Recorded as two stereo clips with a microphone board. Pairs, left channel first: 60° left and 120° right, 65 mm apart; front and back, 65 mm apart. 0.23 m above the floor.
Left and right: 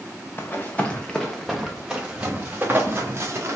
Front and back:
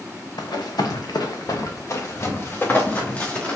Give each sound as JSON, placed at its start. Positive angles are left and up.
{"t": 0.4, "sound": "running footsteps", "azimuth_deg": 5, "distance_m": 1.2}